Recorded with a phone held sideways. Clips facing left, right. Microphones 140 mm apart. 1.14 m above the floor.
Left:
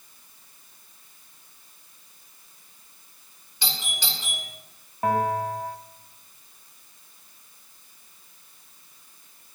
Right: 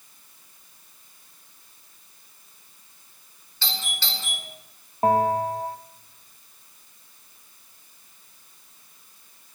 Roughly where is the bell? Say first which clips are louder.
Right 3 dB; right.